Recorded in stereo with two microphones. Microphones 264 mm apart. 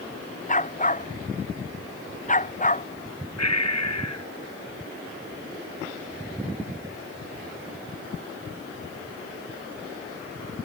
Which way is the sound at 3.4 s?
85° left.